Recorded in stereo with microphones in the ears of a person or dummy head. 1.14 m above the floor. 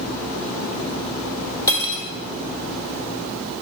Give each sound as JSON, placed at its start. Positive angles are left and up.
{"t": 1.7, "sound": "cutlery clinking", "side_deg": 20, "distance_m": 0.7}